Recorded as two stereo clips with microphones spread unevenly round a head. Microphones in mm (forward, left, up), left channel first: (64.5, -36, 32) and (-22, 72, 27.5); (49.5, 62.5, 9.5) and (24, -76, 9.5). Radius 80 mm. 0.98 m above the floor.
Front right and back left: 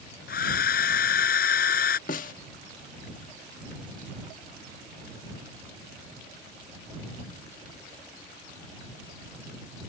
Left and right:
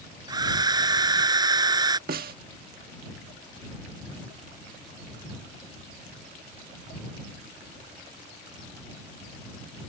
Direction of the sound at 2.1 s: 85° right.